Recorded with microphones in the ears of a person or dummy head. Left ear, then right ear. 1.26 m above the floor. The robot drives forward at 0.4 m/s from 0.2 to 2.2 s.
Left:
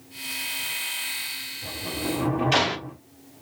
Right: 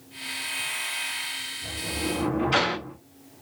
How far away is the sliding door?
About 1.7 m.